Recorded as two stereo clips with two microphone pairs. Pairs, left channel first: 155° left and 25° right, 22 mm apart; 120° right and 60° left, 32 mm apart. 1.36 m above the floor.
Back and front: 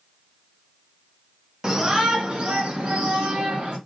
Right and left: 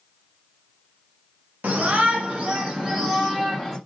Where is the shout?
35° left, 1.6 m; by 3.8 s 25° right, 2.5 m.